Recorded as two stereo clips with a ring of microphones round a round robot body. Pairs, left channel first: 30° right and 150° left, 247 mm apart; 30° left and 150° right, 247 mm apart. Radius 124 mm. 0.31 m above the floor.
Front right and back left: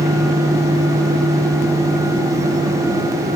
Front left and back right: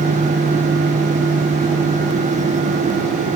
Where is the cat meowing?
I don't hear a cat meowing.